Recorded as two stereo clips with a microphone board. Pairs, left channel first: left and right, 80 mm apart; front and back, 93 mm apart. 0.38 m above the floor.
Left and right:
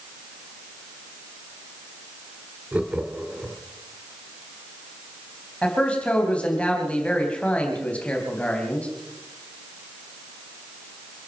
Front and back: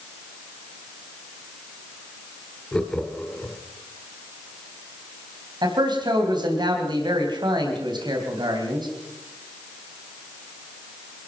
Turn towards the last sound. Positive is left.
turn(degrees=165)